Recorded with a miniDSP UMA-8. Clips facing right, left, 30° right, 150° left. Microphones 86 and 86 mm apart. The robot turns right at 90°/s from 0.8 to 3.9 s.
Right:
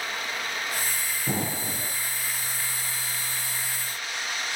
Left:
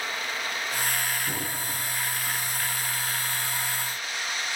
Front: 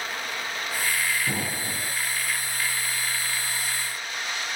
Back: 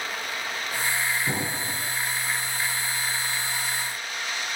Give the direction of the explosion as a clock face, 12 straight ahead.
5 o'clock.